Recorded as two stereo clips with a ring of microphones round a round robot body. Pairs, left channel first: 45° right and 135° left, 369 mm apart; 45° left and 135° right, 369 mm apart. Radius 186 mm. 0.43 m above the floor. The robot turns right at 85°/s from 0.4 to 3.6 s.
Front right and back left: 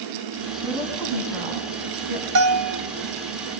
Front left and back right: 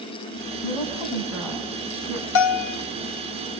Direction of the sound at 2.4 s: 80° left.